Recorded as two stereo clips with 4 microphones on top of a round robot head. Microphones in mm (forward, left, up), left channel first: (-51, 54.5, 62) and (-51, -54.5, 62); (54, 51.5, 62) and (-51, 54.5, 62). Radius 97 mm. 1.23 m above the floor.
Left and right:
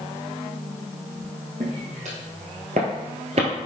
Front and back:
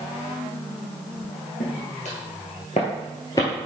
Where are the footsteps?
35° right, 2 m; by 3.7 s 75° right, 1.4 m.